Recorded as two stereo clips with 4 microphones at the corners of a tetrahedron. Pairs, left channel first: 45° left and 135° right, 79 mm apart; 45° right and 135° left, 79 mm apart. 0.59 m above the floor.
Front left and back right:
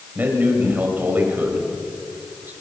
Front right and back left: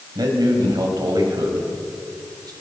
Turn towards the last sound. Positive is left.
turn(degrees=160)